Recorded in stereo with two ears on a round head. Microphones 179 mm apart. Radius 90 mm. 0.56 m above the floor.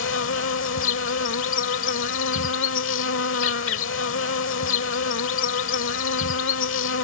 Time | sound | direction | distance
0.0 | an insect | 75° left (ahead or behind) | ?